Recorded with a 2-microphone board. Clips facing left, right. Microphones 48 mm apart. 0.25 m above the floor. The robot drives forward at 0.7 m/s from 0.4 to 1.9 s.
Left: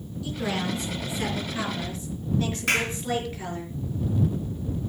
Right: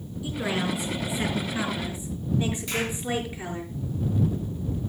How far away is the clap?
About 3 m.